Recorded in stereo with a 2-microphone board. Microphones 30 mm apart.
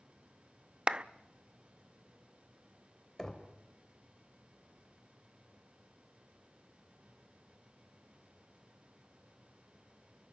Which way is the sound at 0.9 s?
30° right (ahead or behind).